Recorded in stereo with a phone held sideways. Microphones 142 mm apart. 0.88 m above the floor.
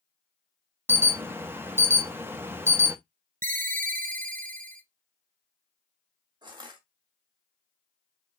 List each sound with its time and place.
0.9 s an alarm: 15° right (ahead or behind), 0.6 m
3.4 s a ringtone: 70° right (ahead or behind), 0.6 m
6.4 s crushing: 30° right (ahead or behind), 1.7 m